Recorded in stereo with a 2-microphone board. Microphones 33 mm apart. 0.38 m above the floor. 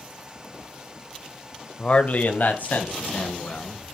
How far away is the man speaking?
About 1.1 m.